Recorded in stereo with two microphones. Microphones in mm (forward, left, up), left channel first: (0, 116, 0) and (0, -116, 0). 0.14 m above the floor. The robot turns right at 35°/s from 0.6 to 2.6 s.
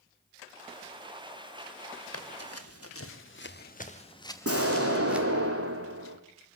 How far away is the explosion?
About 2.5 m.